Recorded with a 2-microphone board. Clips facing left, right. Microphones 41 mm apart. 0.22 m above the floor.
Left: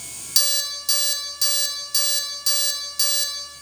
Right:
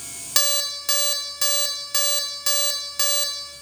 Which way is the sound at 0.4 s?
45° right (ahead or behind).